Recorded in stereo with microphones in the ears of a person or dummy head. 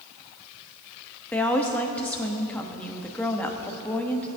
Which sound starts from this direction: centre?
A woman speaking, at 1.3 s.